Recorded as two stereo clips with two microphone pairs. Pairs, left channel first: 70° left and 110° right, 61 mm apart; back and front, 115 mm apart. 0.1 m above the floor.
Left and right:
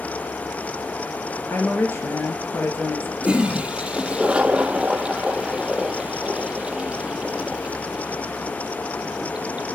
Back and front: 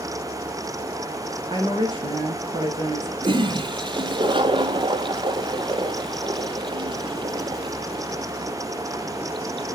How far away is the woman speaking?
About 2.5 m.